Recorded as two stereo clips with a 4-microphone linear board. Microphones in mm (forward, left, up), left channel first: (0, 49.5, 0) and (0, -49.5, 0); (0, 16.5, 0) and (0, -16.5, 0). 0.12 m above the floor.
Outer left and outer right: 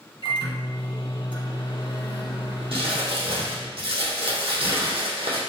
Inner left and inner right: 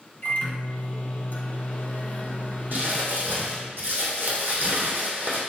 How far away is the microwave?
About 2 m.